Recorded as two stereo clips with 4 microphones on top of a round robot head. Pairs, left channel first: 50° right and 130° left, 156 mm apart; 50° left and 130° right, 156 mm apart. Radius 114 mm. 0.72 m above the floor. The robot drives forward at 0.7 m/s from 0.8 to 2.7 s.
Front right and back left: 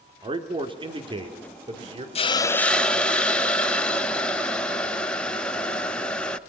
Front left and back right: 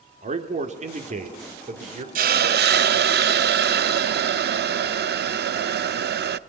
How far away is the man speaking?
About 2.5 m.